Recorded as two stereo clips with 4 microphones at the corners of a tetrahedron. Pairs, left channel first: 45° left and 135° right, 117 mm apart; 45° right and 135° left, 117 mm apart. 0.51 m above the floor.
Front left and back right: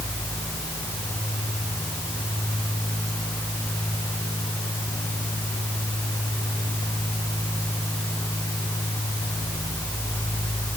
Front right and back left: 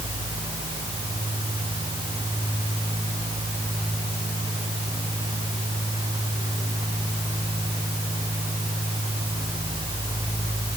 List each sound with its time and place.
Only background noise.